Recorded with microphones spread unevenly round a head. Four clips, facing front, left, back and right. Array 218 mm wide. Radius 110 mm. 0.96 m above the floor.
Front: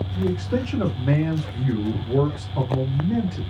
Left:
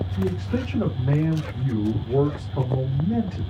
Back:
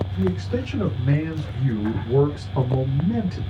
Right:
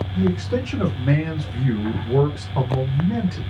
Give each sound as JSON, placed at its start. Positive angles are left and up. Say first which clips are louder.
{"t": 0.1, "sound": "a man speaking", "louder": "right 5 dB, front 2 dB", "azimuth_deg": -70, "distance_m": 1.4}